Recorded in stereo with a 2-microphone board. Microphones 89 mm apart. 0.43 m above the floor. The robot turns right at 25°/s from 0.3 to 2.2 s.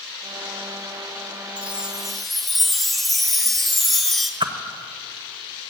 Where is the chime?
15° right (ahead or behind), 1.1 m; by 4.3 s centre (ahead or behind), 1.1 m.